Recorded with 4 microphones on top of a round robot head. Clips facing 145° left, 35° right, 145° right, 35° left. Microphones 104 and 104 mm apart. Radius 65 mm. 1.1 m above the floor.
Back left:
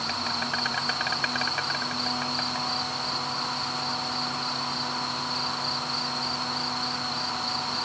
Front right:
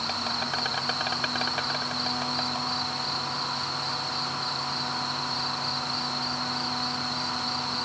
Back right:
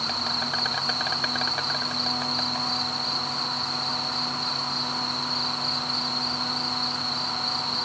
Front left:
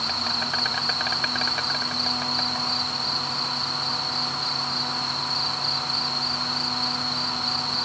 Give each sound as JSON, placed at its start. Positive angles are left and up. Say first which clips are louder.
{"t": 0.0, "sound": "an insect", "louder": "even, front left 1 dB", "azimuth_deg": -65}